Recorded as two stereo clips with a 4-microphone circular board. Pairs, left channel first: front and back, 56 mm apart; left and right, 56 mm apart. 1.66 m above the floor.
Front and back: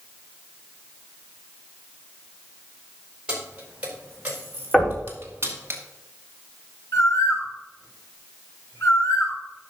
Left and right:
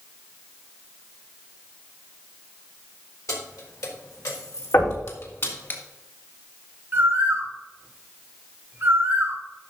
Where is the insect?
No insect in this recording.